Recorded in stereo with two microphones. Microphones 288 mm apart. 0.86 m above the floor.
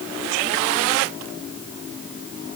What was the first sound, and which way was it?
Only background noise.